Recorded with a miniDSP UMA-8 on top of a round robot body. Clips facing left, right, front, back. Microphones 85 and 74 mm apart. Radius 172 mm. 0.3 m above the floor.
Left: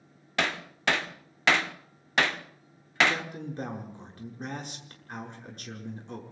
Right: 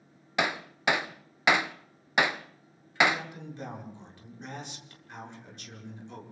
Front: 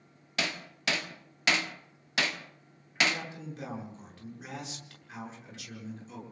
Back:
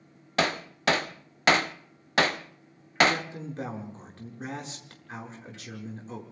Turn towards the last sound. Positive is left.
turn(degrees=130)